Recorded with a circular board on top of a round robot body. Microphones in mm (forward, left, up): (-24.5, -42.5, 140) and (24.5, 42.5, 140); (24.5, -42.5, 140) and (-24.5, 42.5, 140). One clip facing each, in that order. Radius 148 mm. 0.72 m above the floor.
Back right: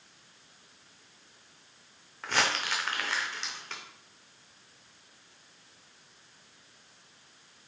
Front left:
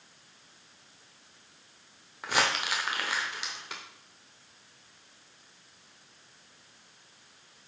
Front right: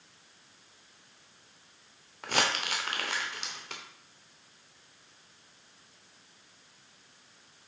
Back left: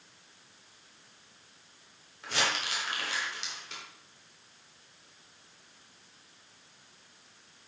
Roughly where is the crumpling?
Ahead.